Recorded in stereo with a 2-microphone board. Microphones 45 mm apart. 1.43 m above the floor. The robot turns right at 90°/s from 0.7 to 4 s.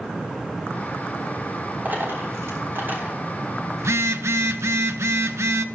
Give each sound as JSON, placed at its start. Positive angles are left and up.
{"t": 1.9, "sound": "a dropped coin", "side_deg": -40, "distance_m": 3.5}
{"t": 3.8, "sound": "a phone buzzing", "side_deg": -70, "distance_m": 0.7}